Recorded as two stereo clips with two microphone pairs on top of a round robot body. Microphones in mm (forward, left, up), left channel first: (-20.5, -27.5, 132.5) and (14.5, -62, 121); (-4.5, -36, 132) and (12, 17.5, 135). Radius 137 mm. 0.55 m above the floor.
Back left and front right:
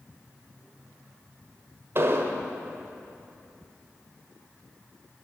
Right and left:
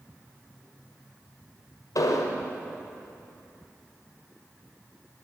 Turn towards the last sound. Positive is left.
turn(degrees=-90)